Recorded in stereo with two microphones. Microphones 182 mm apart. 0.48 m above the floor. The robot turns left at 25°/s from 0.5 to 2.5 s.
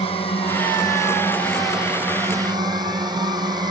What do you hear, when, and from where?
0.0 s a drone: 30° left; by 3.7 s 20° right